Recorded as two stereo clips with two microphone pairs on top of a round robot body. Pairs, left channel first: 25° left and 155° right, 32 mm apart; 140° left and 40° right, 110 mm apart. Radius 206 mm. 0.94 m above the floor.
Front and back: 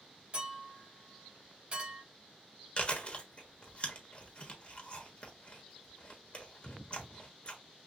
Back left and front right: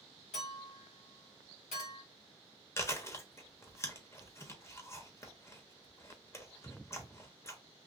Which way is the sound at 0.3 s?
155° left.